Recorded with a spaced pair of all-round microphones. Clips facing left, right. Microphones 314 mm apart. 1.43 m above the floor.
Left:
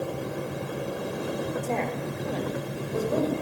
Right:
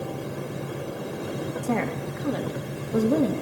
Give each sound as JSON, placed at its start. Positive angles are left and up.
{"t": 1.6, "sound": "a woman speaking", "side_deg": -85, "distance_m": 2.5}